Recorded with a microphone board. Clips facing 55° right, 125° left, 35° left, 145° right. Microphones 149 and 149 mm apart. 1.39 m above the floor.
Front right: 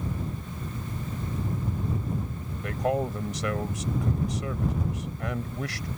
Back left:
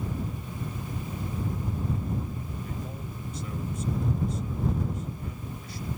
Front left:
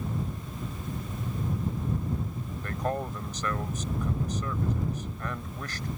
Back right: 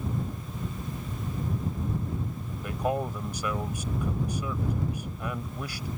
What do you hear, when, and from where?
2.6 s a man speaking: 65° right